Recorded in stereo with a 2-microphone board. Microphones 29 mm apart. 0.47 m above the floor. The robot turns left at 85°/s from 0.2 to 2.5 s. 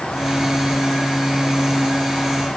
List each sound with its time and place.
Only background noise.